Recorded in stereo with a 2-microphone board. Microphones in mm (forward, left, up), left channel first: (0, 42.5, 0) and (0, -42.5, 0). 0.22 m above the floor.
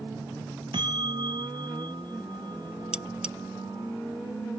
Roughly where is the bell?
Right.